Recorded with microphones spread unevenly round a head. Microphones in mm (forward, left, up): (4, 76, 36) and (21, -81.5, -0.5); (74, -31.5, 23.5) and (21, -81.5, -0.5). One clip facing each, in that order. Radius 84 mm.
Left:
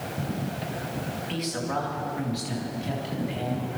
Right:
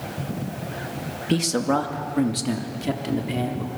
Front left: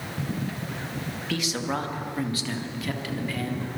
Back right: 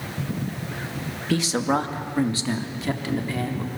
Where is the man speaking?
95° right, 2 m; by 3.7 s 80° right, 4 m.